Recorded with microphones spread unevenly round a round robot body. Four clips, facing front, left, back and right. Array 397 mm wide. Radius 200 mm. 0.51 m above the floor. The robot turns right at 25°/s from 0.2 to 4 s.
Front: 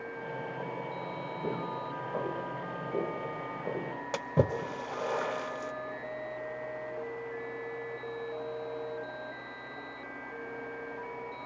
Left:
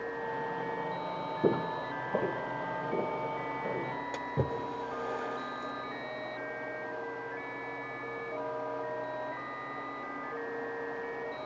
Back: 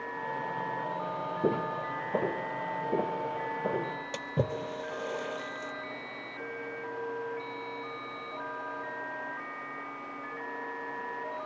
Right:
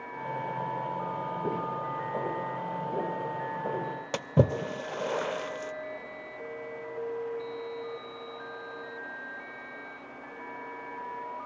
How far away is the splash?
About 0.5 m.